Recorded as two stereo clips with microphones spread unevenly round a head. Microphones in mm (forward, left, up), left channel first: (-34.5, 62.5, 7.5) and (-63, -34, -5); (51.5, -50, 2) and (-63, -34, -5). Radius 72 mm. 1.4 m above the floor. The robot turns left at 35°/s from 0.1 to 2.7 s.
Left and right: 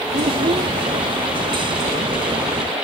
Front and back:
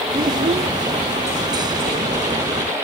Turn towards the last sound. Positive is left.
turn(degrees=135)